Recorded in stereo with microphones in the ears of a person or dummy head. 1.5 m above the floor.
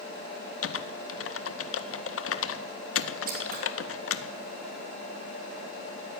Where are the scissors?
45° right (ahead or behind), 2.5 m.